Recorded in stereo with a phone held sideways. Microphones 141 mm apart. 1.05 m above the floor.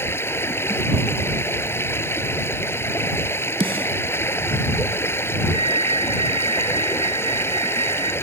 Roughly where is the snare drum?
Right.